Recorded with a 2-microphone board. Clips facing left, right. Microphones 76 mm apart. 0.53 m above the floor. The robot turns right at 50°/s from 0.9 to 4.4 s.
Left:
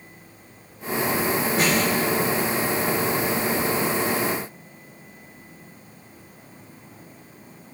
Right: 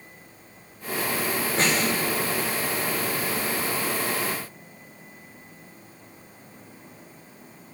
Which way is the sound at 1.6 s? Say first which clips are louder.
Left 1 dB; 5° left (ahead or behind).